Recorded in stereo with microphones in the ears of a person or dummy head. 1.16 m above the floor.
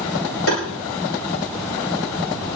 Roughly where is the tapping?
Left.